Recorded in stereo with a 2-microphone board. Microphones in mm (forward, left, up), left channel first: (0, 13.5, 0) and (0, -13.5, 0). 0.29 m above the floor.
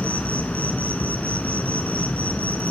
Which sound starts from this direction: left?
An insect, at 0.0 s.